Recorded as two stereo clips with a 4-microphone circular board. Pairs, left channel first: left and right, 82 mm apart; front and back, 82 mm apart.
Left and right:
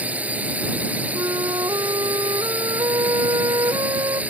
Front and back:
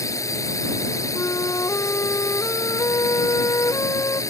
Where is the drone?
25° right.